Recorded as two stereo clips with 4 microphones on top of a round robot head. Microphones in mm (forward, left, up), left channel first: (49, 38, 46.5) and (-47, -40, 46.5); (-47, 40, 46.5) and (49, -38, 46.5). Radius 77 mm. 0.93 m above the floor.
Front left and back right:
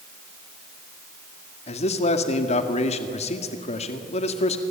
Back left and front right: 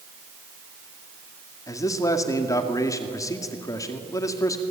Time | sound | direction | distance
1.7 | a man speaking | 75° left | 2 m